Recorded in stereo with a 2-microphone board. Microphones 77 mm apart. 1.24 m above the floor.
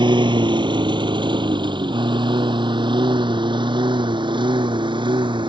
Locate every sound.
0.0 s a lawn mower: 80° right; by 5.5 s 85° right